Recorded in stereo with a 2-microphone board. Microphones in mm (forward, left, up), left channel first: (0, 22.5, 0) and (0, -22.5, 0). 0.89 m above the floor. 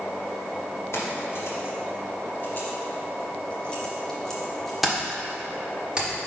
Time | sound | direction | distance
0.9 | keys jangling | 75° left (ahead or behind) | 2 m